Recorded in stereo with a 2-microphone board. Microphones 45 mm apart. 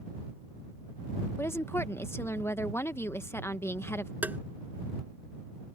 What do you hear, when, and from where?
1.4 s a woman speaking: 65° left (ahead or behind)
4.2 s tapping: 40° right (ahead or behind)